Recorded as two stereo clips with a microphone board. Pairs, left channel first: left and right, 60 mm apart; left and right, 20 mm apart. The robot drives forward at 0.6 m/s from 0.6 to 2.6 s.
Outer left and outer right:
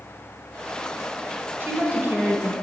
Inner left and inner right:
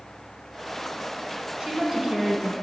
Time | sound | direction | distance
1.6 | a woman speaking | 35° right (ahead or behind) | 1.3 m